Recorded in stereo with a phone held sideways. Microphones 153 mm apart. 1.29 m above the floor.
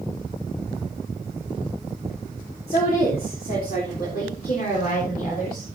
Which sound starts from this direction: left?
A woman speaking, at 2.7 s.